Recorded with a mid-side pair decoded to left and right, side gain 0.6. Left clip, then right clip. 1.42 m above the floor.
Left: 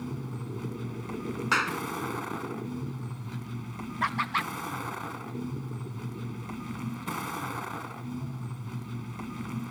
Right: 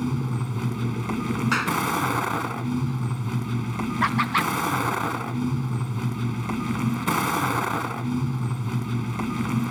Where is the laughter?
30° right.